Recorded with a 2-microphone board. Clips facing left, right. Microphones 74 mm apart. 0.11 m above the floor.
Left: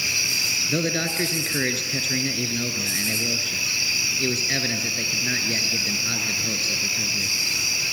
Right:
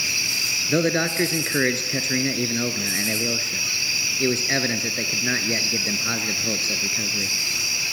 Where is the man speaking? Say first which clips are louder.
Right 5 dB; 30° right (ahead or behind), 1.2 m.